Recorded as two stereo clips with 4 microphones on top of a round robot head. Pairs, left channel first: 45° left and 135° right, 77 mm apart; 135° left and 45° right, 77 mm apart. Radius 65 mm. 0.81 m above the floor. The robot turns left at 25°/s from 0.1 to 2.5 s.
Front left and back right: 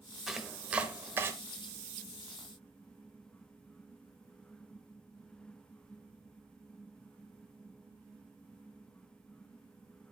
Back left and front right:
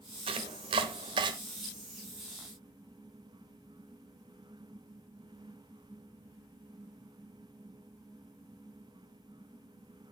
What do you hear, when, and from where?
0.3 s chopping: 45° right, 0.9 m; by 1.3 s 75° right, 0.9 m